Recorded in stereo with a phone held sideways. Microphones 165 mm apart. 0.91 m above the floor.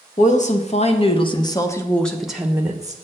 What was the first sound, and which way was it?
A woman speaking, 50° left (ahead or behind).